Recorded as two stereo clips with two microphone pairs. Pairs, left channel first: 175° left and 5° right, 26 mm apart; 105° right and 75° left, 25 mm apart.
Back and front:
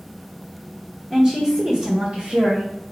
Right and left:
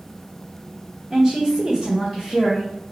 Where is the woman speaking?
25° left, 1.3 m; by 2.7 s 5° right, 1.8 m.